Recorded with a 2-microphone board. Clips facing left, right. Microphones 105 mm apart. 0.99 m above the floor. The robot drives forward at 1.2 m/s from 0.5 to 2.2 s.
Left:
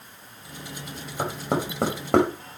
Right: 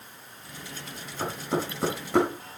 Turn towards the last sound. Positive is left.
turn(degrees=65)  # may be behind; listen again after turning